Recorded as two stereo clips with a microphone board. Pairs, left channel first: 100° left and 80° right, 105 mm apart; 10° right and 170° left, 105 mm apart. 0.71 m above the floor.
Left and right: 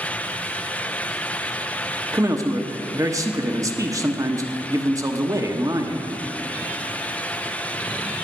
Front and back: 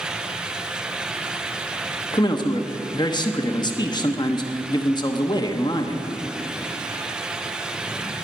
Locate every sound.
2.1 s a man speaking: 35° right, 1.1 m